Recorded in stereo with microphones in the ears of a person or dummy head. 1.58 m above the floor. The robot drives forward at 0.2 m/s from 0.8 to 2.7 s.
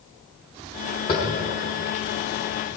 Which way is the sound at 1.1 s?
15° left (ahead or behind).